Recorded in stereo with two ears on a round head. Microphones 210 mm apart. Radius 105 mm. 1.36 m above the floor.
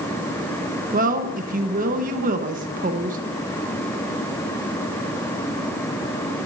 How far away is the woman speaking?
About 1.3 m.